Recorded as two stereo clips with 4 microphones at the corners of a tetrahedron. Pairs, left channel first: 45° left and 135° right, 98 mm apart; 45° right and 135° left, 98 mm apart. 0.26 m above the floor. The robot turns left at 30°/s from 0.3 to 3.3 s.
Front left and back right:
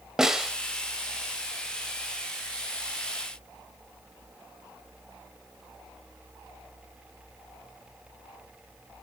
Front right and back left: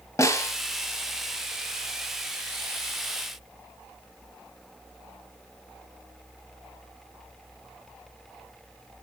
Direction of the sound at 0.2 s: 55° right.